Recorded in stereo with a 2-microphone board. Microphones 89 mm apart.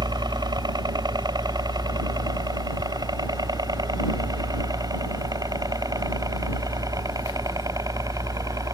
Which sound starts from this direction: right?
A helicopter, at 0.0 s.